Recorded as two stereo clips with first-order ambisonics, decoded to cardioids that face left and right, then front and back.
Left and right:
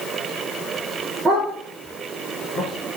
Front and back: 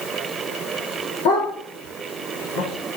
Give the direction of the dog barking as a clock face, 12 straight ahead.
12 o'clock.